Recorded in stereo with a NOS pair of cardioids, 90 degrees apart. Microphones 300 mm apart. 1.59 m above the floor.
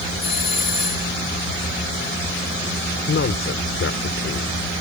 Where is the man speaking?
45° left.